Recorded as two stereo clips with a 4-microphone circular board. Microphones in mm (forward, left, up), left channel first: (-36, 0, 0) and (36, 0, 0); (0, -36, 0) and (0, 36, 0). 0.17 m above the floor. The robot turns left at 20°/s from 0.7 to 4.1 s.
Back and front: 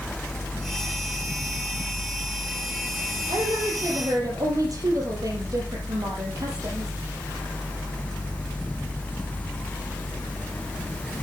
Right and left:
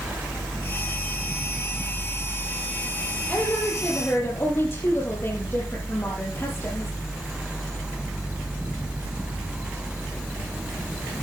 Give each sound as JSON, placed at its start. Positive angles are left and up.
{"t": 3.3, "sound": "a woman speaking", "azimuth_deg": -15, "distance_m": 5.0}